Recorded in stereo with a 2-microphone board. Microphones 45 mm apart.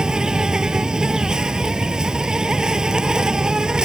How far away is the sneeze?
I don't hear a sneeze.